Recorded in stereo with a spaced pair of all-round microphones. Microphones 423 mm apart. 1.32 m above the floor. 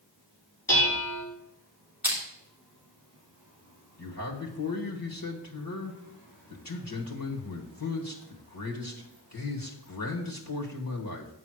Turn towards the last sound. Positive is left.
turn(degrees=50)  # may be behind; listen again after turning